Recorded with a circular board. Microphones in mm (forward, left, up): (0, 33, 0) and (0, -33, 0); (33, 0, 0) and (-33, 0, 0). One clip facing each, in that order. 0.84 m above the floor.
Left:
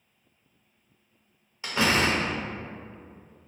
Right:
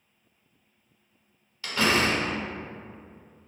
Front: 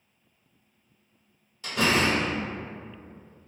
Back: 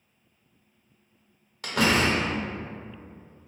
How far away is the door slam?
About 0.7 m.